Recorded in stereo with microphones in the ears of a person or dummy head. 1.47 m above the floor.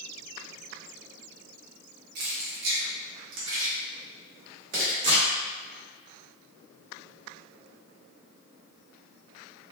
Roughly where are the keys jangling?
Right.